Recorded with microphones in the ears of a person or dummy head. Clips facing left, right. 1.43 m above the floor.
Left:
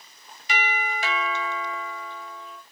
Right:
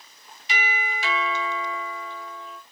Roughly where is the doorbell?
Left.